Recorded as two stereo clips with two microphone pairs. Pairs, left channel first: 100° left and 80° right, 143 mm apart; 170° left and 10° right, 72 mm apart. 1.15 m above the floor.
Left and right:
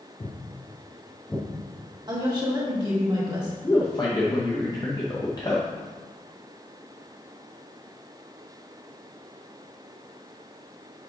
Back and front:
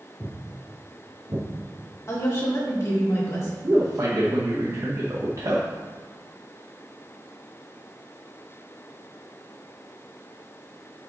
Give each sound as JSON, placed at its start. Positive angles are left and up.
{"t": 0.2, "sound": "footsteps", "azimuth_deg": 105, "distance_m": 1.5}
{"t": 2.1, "sound": "a woman speaking", "azimuth_deg": -140, "distance_m": 2.0}
{"t": 3.6, "sound": "a man speaking", "azimuth_deg": 35, "distance_m": 0.8}